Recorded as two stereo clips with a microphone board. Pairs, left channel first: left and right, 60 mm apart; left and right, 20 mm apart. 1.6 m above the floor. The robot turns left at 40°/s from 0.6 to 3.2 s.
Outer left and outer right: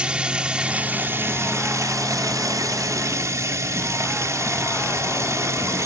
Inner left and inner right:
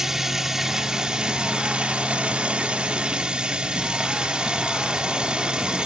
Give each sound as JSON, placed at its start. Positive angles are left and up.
{"t": 0.0, "sound": "running water", "azimuth_deg": -20}